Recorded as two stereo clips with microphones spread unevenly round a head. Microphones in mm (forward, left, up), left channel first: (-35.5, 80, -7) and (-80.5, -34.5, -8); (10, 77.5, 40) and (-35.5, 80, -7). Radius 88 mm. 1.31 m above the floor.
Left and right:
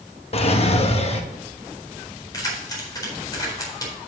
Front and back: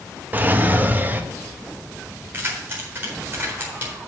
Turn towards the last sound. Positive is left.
turn(degrees=130)